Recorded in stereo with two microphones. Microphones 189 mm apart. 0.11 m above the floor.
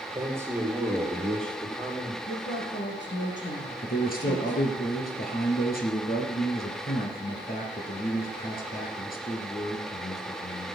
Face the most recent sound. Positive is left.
turn(degrees=50)  # may be behind; listen again after turning